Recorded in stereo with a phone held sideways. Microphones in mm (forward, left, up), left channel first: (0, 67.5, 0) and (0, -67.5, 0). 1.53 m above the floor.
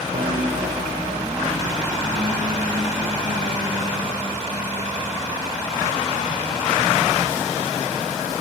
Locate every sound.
0.1 s a piano: 75° right (ahead or behind), 4.5 m